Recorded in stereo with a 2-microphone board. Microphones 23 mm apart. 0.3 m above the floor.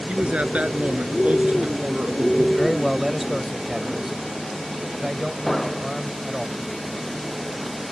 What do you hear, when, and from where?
0.1 s a man speaking: 75° right (ahead or behind)
2.6 s a man speaking: 10° right (ahead or behind)
5.5 s an explosion: 15° left (ahead or behind)